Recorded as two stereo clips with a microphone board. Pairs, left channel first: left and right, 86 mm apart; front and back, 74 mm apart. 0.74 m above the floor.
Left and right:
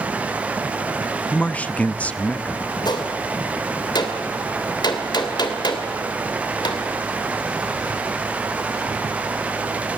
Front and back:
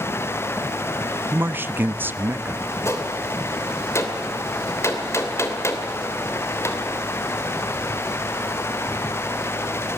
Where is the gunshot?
55° left, 2.5 m.